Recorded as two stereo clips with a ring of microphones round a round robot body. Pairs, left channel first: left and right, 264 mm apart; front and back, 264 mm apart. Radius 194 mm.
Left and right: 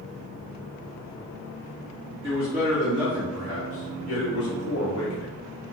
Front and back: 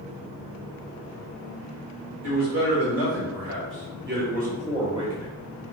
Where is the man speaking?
170° right, 1.6 m; by 5.3 s 100° left, 1.3 m.